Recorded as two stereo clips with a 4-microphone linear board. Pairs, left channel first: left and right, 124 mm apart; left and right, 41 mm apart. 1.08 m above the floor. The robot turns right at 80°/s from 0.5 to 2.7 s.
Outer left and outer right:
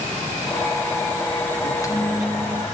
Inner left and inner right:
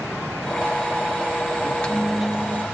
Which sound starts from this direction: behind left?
A microwave, at 1.6 s.